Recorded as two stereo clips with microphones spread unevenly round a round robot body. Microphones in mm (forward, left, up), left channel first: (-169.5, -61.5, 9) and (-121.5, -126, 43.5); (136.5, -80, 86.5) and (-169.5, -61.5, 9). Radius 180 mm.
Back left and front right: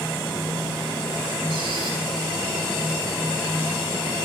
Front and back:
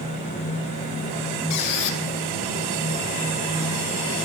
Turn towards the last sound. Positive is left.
turn(degrees=-25)